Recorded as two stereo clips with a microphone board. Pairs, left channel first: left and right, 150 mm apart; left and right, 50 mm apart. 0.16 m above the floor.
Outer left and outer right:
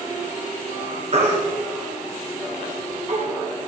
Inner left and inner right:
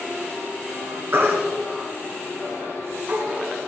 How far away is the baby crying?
About 1.9 m.